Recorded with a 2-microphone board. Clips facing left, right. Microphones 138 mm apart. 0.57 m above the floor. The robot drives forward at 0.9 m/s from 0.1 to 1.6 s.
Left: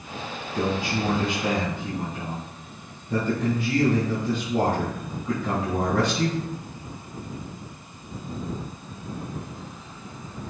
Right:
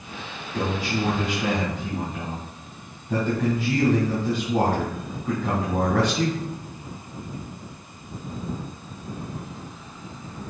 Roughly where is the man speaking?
Right.